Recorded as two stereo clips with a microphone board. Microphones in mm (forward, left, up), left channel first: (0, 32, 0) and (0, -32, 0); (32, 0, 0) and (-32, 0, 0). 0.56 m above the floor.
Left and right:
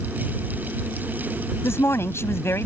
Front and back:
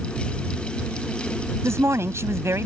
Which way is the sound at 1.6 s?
135° left.